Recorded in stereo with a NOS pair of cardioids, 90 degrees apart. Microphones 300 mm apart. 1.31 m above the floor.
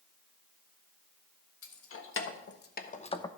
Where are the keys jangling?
50° left, 1.7 m; by 3.3 s 10° left, 0.7 m.